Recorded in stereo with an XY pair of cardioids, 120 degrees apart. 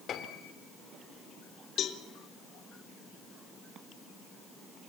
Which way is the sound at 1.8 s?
60° left.